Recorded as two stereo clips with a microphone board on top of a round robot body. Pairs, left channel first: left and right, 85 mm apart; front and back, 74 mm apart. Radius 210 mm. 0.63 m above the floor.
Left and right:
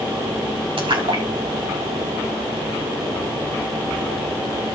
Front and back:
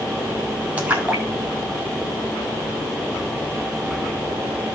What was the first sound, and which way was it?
A splash, 105° right.